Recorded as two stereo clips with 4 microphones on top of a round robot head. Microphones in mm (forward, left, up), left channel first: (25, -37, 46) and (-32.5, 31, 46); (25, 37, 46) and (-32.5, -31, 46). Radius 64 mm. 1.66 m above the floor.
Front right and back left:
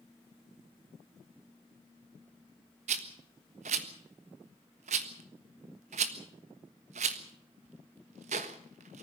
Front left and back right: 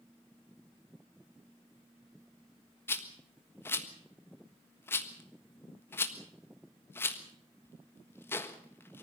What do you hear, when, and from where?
2.9 s a rattle: 115° left, 1.4 m